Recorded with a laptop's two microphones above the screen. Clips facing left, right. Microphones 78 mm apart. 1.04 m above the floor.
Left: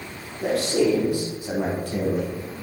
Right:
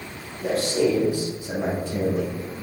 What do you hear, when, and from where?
0.4 s a man speaking: 70° left (ahead or behind), 3 m; by 2.3 s 50° left (ahead or behind), 3.5 m